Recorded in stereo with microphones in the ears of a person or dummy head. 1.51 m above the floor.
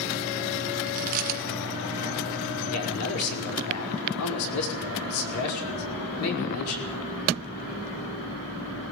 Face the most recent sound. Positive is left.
turn(degrees=85)